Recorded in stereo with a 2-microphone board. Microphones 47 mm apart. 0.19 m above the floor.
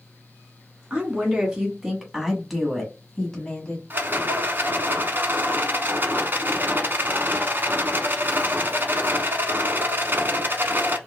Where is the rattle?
45° right (ahead or behind), 0.9 m.